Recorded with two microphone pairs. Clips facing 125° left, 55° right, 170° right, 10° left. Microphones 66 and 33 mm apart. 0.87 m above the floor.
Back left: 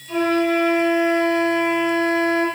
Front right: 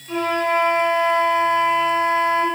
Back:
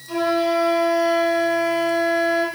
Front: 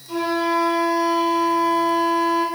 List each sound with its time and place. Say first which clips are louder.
0.1 s a flute: back left 1 dB, back 1 dB; 110° right, 1.3 m